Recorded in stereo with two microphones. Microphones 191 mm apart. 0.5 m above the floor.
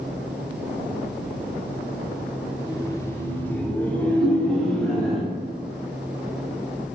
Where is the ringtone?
60° left (ahead or behind), 3 m.